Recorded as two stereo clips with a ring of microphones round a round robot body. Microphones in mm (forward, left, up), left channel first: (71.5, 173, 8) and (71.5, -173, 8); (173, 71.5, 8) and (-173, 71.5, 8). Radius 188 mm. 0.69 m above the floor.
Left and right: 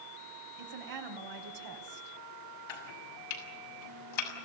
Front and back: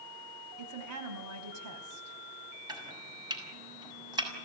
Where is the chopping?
100° left, 6.5 m.